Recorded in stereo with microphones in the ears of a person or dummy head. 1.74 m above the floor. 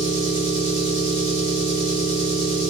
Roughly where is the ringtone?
I don't hear a ringtone.